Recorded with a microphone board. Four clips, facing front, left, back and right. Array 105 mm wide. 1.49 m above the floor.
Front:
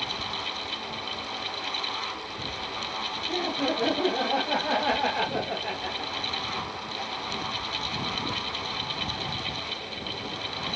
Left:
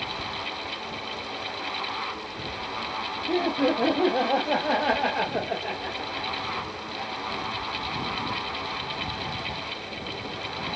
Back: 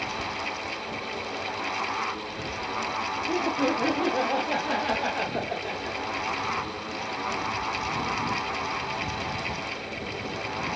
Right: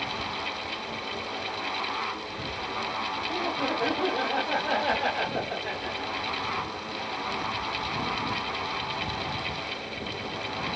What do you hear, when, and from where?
3.3 s laughter: 105° left, 1.2 m; by 7.1 s 55° left, 3 m